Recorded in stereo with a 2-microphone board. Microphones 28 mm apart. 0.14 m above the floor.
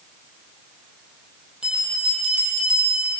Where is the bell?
35° right (ahead or behind), 3.5 m.